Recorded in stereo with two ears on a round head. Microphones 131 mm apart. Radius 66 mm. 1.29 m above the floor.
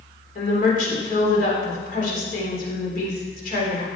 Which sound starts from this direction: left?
A woman speaking, at 0.3 s.